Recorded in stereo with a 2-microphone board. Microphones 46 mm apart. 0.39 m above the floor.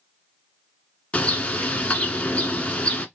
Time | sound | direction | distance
1.1 | a bird | 25° left (ahead or behind) | 1.0 m